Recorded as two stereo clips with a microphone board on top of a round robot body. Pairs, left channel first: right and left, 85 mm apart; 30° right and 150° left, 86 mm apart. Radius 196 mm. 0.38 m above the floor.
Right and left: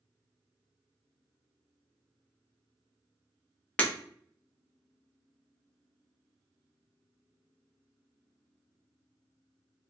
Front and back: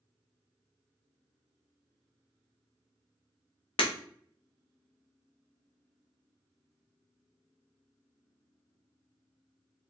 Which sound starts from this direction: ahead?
Breaking glass, at 3.8 s.